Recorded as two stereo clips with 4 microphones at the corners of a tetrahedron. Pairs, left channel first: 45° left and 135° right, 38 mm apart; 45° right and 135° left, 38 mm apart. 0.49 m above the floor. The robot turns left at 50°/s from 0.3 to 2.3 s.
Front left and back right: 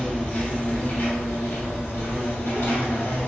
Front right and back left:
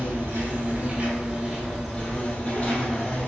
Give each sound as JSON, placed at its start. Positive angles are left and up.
{"t": 0.0, "sound": "an insect", "azimuth_deg": 115, "distance_m": 1.2}